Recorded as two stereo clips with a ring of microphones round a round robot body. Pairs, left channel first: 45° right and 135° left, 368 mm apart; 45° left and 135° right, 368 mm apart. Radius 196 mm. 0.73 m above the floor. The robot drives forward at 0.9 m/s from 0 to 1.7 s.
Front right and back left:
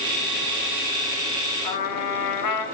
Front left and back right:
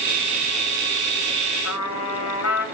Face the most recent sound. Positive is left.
turn(degrees=-5)